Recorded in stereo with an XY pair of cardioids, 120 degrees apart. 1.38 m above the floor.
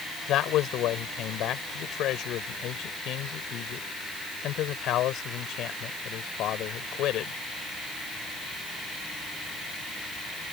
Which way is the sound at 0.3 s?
70° left.